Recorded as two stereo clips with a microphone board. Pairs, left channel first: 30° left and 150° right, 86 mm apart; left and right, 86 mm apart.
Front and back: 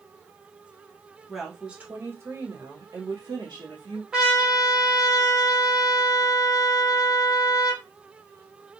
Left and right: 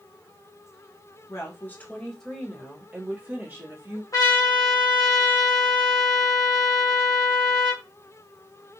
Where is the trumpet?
130° left, 0.9 m.